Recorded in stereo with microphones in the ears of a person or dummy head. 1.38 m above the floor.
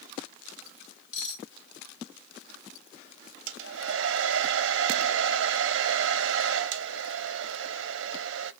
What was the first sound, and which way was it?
Cutlery clinking, 65° left (ahead or behind).